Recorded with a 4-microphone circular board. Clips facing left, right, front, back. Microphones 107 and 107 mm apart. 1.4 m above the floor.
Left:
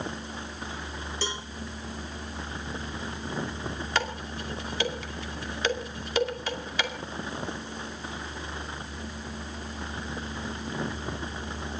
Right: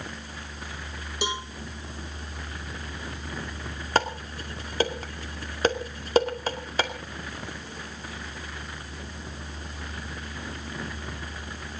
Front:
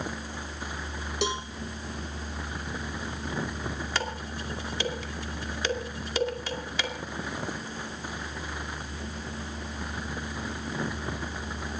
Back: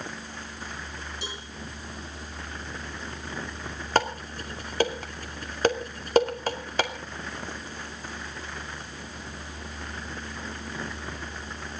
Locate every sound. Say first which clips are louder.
1.2 s a cowbell: right 5 dB, front 10 dB; 15° right, 1.8 m
4.0 s dishes clattering: right 6 dB, back 7 dB; 140° right, 2.5 m